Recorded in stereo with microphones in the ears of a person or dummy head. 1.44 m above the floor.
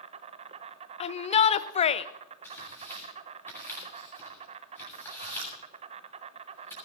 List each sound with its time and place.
0.0 s an insect: 35° right (ahead or behind), 0.9 m
1.0 s a shout: 35° left (ahead or behind), 0.7 m
2.4 s tearing paper: 15° left (ahead or behind), 7.5 m